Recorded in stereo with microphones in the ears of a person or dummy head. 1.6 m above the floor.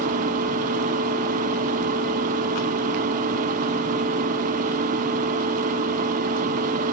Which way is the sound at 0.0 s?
45° right (ahead or behind).